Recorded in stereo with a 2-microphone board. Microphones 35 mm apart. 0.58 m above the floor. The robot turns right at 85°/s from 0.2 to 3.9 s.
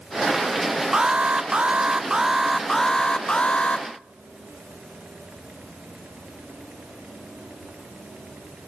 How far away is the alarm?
About 1.0 m.